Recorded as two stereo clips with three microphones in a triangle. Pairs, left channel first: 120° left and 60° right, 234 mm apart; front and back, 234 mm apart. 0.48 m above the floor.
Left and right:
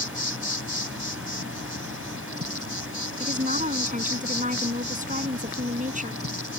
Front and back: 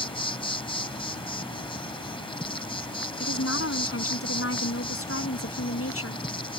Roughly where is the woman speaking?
Ahead.